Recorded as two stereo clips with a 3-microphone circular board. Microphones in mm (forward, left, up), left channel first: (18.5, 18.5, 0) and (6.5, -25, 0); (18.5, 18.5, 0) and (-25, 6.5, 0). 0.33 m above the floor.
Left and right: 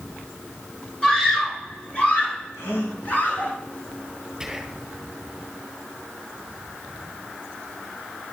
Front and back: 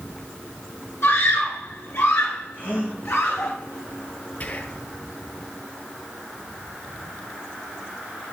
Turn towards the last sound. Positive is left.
turn(degrees=-15)